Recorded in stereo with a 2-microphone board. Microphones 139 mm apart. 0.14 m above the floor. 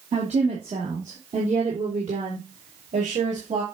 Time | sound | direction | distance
0.1 | a woman speaking | 55° right (ahead or behind) | 4 m